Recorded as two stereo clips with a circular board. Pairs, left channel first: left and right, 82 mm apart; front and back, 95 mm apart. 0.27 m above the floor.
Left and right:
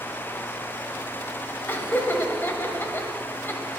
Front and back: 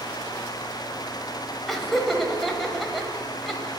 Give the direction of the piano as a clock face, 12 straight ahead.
No piano in this recording.